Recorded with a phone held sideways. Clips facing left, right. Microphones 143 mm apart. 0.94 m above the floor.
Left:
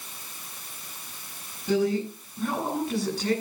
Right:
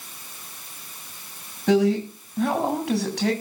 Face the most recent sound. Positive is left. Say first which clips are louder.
# right 5 dB
turn(degrees=-85)